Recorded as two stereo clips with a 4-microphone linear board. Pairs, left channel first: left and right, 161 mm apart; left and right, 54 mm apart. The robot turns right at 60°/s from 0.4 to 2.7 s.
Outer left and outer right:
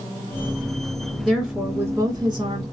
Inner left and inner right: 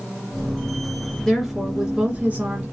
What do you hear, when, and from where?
1.2 s a woman speaking: centre (ahead or behind), 1.5 m; by 2.6 s 30° right (ahead or behind), 1.5 m